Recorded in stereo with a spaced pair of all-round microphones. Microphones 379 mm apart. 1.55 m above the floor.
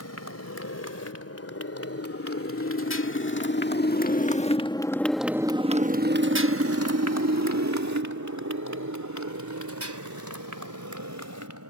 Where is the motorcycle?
40° left (ahead or behind); by 11.7 s 45° right (ahead or behind).